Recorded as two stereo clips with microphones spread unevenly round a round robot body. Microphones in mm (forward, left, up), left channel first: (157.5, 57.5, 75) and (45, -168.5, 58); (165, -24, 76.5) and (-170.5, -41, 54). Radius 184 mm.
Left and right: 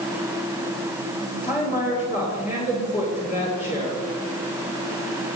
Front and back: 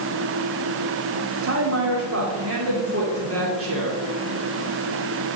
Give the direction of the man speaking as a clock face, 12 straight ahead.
8 o'clock.